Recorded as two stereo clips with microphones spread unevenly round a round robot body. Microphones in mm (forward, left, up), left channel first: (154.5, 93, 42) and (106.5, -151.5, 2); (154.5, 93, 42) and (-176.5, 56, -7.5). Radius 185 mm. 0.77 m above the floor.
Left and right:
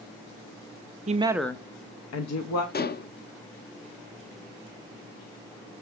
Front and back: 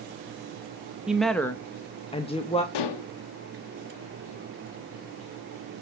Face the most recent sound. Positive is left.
turn(degrees=20)